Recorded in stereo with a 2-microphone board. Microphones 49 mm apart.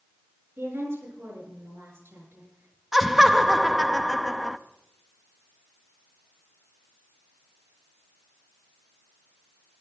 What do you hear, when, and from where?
0.6 s a woman speaking: 65° right (ahead or behind), 6.5 m
2.9 s laughter: 5° right (ahead or behind), 0.5 m